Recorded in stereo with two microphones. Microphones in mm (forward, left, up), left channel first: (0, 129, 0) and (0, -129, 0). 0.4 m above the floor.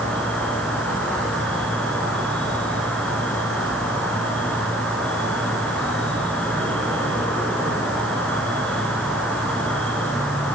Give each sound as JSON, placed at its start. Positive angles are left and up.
{"t": 0.0, "sound": "an insect", "side_deg": 5, "distance_m": 3.0}